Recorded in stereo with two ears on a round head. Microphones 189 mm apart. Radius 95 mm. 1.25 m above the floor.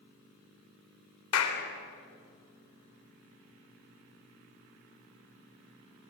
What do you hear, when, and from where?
1.3 s a clap: 80° left, 3.5 m